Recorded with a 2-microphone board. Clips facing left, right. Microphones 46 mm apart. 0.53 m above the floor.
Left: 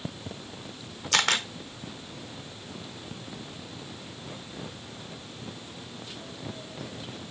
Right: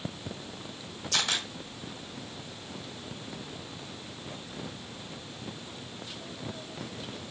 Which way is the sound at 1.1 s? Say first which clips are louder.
Left 6 dB; 60° left (ahead or behind).